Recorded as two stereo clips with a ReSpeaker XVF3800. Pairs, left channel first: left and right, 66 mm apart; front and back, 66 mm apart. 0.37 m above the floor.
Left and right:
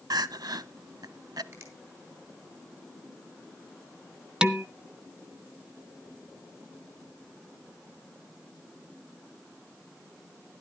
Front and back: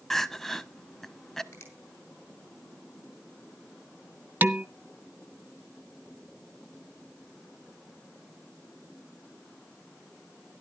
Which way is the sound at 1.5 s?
50° right.